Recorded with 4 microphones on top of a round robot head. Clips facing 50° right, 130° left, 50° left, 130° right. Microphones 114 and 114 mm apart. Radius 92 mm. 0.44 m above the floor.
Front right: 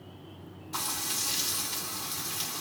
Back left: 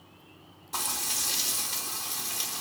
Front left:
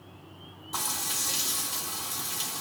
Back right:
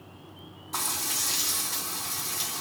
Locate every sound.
0.7 s frying: 135° left, 1.8 m